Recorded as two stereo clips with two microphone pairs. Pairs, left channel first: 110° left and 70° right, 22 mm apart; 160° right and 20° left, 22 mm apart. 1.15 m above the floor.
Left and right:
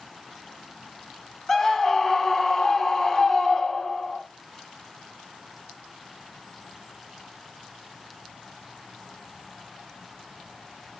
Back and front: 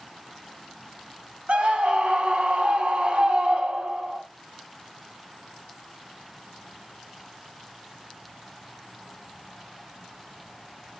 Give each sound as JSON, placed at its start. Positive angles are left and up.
{"t": 1.5, "sound": "a scream", "azimuth_deg": 35, "distance_m": 2.5}